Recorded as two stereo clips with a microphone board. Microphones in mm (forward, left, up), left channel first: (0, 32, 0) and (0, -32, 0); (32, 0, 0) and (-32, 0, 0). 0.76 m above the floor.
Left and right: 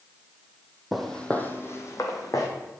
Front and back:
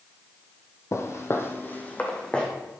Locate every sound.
0.9 s footsteps: 5° right, 1.1 m; by 2.5 s 70° left, 1.8 m